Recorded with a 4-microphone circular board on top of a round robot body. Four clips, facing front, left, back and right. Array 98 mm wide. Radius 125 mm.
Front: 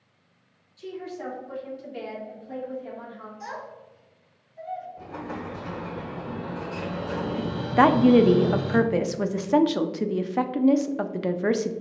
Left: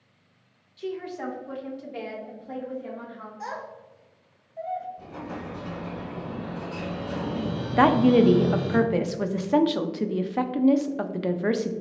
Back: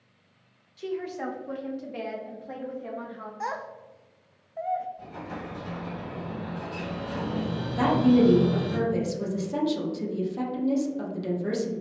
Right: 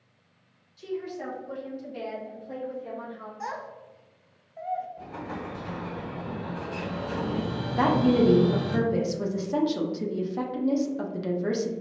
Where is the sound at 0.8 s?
155° left, 1.0 m; by 3.3 s 145° left, 2.5 m.